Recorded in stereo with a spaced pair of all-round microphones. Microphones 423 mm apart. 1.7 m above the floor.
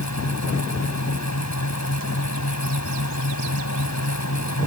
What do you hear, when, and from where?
0.0 s a fan: 40° left (ahead or behind)